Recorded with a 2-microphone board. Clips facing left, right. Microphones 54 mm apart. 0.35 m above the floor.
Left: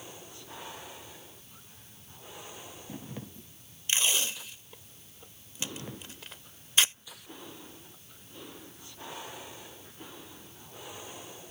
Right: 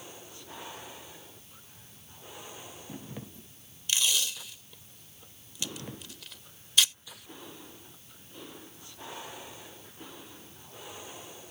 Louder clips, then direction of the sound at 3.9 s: Left 1 dB; 30° left (ahead or behind).